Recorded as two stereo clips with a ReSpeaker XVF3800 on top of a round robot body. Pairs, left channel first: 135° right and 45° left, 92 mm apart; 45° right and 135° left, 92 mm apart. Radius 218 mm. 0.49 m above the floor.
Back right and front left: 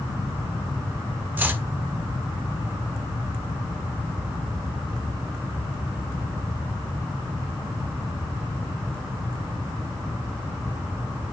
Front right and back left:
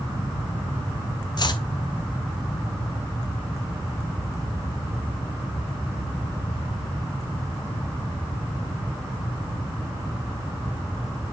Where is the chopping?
20° right, 1.1 m.